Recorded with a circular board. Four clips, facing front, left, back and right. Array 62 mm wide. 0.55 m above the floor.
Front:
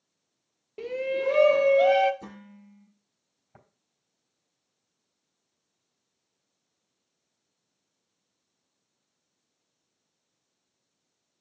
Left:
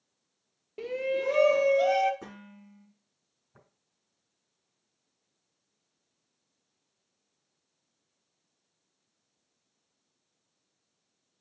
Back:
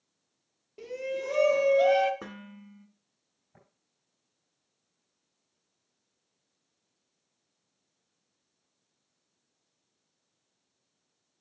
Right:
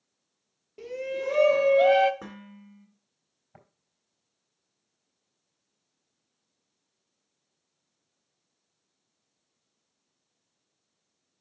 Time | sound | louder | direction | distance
0.8 | a shout | left 2 dB, front 6 dB | 45° left | 0.7 m
2.2 | dishes clattering | right 3 dB, back 2 dB | 155° right | 3.5 m
3.5 | tapping | right 5 dB, front 4 dB | 65° right | 4 m